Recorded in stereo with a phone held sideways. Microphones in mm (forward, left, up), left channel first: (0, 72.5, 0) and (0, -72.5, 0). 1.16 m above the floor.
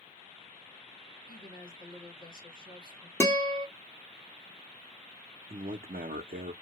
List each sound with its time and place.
1.3 s a woman speaking: 85° left, 1.7 m
3.2 s a guitar: 20° left (ahead or behind), 0.9 m
5.5 s a man speaking: 80° right, 0.6 m